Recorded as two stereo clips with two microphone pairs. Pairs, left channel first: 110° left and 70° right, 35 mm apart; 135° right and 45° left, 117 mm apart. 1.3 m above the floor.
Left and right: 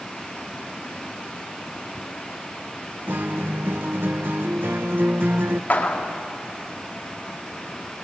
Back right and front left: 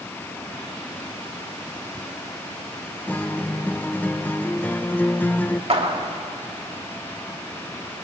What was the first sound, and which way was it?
A guitar, 55° right.